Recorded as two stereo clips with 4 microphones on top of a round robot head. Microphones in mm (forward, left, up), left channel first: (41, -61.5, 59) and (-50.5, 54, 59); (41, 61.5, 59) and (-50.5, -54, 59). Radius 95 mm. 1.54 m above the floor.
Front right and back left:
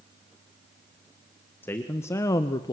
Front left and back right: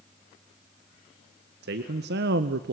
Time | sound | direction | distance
1.6 | a man speaking | 130° right | 1.5 m